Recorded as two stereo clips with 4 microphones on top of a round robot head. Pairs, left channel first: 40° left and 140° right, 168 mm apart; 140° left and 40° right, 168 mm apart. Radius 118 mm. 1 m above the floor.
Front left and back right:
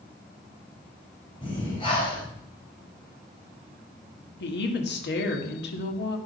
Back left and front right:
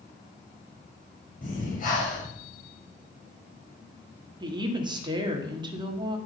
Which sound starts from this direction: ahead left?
A woman speaking, at 4.4 s.